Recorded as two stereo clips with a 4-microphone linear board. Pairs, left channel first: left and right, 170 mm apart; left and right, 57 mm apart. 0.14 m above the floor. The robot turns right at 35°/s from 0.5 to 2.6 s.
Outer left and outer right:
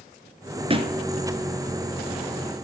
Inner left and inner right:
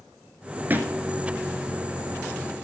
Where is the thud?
35° right (ahead or behind), 0.9 m; by 1.0 s 25° right (ahead or behind), 0.9 m.